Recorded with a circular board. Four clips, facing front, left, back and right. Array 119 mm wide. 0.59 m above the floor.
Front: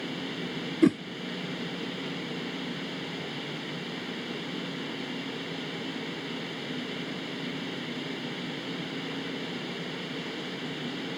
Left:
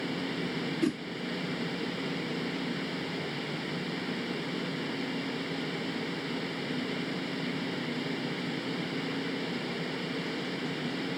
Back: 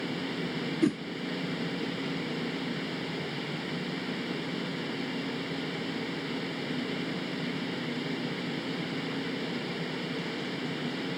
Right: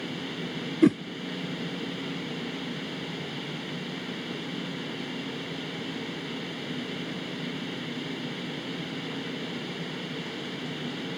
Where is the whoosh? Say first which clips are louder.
Right 10 dB, front 5 dB; 55° right, 0.6 m.